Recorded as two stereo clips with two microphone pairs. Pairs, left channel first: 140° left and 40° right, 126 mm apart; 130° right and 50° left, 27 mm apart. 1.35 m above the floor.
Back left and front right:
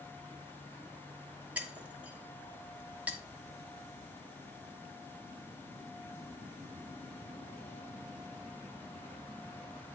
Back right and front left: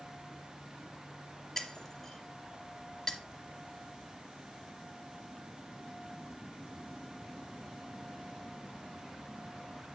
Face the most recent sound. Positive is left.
turn(degrees=-100)